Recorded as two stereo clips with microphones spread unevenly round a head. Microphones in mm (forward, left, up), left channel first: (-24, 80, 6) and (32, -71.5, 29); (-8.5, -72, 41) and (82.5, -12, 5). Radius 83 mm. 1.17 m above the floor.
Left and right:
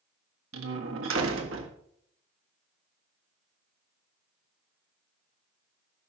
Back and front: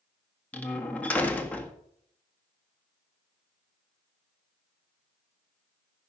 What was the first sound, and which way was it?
A door slam, 70° right.